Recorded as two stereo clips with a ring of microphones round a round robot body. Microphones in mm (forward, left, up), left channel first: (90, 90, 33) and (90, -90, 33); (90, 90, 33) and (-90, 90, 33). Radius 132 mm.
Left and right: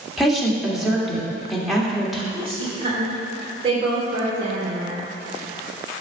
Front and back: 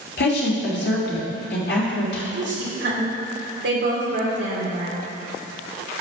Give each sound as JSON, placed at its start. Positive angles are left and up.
{"t": 0.2, "sound": "a woman speaking", "azimuth_deg": 0, "distance_m": 2.5}
{"t": 2.3, "sound": "a woman speaking", "azimuth_deg": -155, "distance_m": 2.5}